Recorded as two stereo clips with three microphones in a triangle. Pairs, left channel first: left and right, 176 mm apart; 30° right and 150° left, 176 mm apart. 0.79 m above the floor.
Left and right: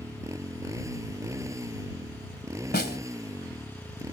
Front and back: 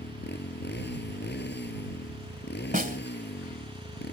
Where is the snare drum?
115° left.